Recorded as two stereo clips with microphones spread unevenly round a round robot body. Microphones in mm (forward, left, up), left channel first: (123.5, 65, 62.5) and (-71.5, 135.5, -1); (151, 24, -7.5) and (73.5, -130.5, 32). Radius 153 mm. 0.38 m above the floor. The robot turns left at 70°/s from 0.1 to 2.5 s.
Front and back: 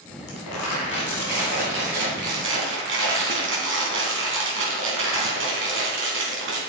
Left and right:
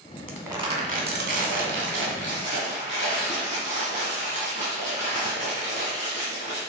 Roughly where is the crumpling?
Ahead right.